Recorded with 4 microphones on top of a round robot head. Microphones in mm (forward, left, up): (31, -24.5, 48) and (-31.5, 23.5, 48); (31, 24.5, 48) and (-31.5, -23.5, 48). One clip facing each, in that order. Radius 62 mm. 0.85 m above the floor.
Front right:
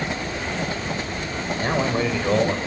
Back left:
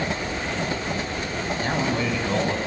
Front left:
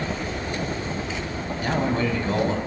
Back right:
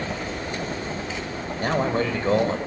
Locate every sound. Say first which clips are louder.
1.6 s a man speaking: front right 3 dB, back right 1 dB; 95° right, 5 m